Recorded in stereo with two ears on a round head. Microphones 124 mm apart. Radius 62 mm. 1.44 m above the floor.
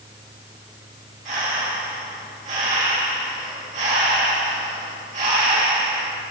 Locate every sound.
1.2 s breathing: 55° right (ahead or behind), 2.5 m